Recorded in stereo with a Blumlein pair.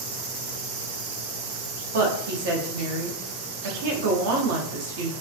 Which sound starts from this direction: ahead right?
A woman speaking, at 1.9 s.